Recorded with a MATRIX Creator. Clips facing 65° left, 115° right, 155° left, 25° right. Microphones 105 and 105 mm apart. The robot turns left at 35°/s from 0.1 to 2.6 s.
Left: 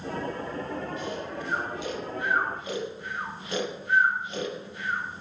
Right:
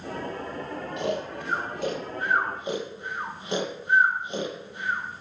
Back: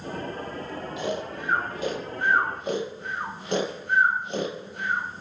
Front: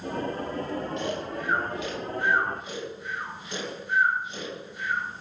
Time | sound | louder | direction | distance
1.0 | snoring | right 4 dB, back 1 dB | 120° right | 4 m